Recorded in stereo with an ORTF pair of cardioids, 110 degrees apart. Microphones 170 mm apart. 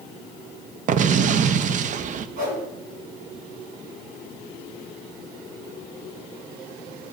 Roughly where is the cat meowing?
No cat meowing in this recording.